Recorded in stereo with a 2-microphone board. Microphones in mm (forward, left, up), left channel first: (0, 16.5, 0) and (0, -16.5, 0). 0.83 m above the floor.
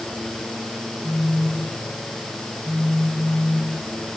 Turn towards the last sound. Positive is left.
turn(degrees=25)  # may be behind; listen again after turning